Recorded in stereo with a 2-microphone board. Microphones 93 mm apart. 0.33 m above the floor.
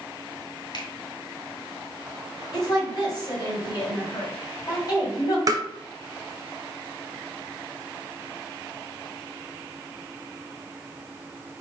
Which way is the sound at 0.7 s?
50° left (ahead or behind).